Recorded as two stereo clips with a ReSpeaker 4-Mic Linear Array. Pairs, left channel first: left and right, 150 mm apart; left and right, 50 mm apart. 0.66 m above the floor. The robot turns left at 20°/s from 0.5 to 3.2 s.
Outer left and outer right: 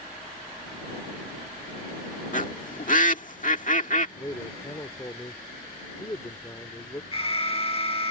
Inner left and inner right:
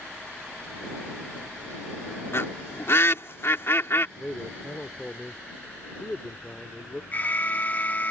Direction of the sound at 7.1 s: 40° left (ahead or behind).